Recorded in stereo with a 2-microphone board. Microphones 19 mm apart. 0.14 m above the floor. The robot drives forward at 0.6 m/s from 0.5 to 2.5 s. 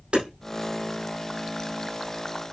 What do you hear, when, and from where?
0.1 s hammering: 75° right (ahead or behind), 5.5 m